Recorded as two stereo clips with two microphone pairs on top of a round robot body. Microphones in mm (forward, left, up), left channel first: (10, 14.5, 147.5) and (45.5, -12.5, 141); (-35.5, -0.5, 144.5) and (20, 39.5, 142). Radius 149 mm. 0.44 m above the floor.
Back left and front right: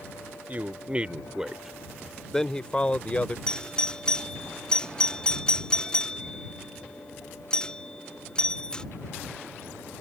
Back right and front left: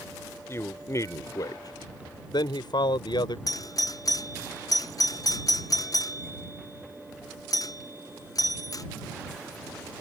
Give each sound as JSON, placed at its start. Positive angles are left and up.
{"t": 0.5, "sound": "a man speaking", "azimuth_deg": -85}
{"t": 3.5, "sound": "a doorbell", "azimuth_deg": -145}